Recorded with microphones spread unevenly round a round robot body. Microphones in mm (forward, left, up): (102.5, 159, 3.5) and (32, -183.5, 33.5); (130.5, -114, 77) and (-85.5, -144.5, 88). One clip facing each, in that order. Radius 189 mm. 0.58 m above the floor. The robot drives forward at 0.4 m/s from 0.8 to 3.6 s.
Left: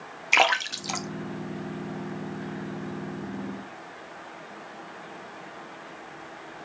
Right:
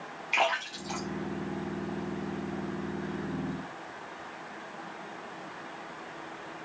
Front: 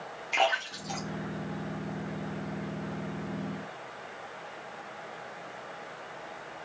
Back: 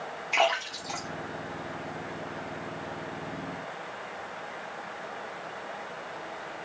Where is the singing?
I don't hear singing.